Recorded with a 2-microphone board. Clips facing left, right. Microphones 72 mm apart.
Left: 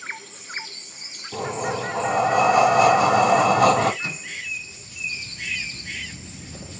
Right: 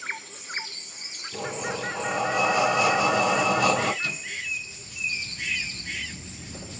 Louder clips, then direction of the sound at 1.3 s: Left 5 dB; 65° left (ahead or behind).